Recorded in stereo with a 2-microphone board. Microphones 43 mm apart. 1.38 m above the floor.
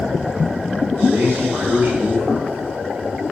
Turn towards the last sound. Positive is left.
turn(degrees=-70)  # may be behind; listen again after turning